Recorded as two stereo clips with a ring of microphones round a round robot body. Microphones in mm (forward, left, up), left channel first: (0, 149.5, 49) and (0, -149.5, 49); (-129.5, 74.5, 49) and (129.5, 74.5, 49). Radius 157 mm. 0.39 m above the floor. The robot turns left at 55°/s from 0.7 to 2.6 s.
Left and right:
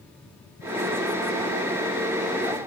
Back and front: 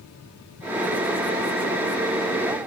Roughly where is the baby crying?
No baby crying in this recording.